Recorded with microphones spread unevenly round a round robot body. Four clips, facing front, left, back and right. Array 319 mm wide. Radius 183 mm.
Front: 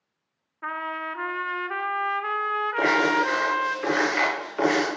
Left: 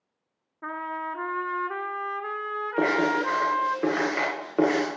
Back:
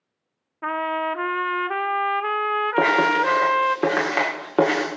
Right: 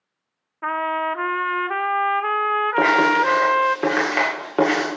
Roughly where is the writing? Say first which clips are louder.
Right 6 dB, back 3 dB; behind right.